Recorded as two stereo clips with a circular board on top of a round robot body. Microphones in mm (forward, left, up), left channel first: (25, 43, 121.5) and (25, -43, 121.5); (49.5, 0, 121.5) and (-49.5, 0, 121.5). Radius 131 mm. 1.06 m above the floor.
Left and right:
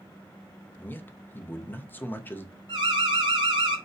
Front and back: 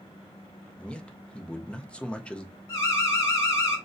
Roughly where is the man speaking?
Ahead left.